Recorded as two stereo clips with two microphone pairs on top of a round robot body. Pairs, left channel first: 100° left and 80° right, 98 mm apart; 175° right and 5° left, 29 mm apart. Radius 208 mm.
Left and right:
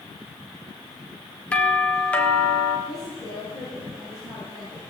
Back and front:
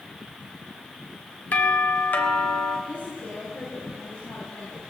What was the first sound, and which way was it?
A doorbell, 175° left.